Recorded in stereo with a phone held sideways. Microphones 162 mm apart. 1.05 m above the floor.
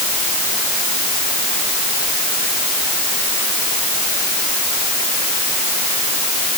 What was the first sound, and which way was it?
Only background noise.